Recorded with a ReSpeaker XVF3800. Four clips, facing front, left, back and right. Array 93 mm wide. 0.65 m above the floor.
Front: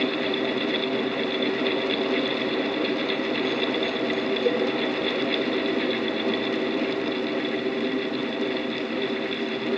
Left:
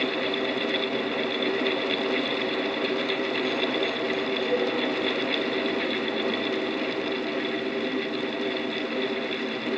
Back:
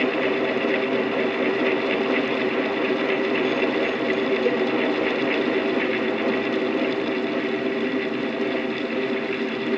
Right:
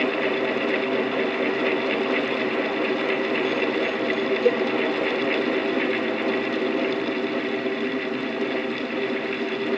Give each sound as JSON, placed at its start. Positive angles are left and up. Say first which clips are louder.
{"t": 4.5, "sound": "a cowbell", "louder": "right 6 dB, front 1 dB", "azimuth_deg": -95, "distance_m": 0.7}